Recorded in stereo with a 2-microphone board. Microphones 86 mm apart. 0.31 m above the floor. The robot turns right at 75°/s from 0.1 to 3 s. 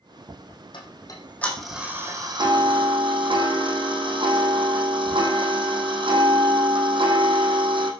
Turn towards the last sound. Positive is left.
turn(degrees=-80)